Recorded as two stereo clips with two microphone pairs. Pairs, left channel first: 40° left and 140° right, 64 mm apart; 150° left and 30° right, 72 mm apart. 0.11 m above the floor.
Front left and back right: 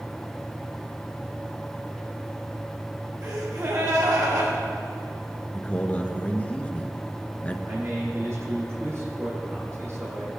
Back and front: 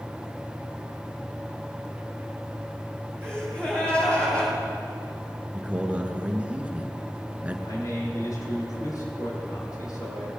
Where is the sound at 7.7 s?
Straight behind, 5 m.